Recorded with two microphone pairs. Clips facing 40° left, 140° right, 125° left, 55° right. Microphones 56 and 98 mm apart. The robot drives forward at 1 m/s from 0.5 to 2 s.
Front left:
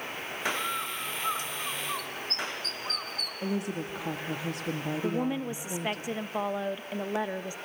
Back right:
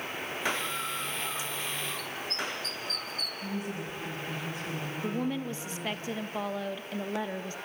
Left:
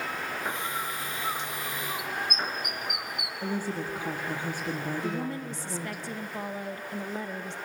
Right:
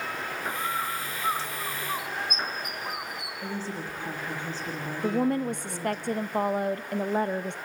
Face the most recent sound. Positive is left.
turn(degrees=-30)